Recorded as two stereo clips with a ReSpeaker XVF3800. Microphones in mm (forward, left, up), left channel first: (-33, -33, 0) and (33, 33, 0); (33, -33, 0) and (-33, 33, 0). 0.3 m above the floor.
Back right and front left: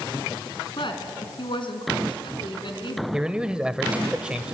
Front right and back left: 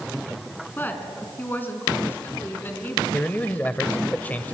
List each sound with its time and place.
0.8 s a woman speaking: 115° right, 3.5 m
3.1 s a man speaking: 15° right, 1.0 m